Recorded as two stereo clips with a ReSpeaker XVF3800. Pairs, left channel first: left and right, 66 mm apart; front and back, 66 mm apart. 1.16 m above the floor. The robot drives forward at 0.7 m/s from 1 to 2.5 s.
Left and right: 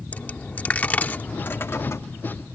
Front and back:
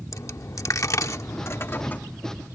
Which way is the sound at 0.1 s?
30° left.